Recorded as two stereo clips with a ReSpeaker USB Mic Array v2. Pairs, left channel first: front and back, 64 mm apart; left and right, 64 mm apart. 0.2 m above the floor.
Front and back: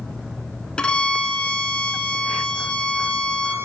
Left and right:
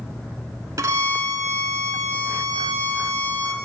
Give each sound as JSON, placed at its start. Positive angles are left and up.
{"t": 0.8, "sound": "a violin", "azimuth_deg": -75, "distance_m": 0.5}